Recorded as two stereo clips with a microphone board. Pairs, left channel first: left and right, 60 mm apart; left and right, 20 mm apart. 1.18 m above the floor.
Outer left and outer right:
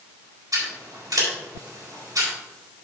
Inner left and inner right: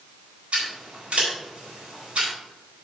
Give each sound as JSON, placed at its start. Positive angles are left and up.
{"t": 0.5, "sound": "scissors", "side_deg": -90, "distance_m": 4.5}